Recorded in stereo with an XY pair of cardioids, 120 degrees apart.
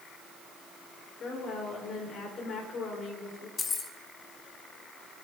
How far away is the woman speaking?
About 4.5 m.